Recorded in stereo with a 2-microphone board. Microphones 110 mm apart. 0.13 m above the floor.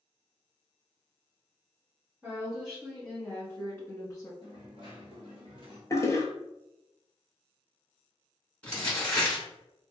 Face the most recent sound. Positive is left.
turn(degrees=10)  # may be behind; listen again after turning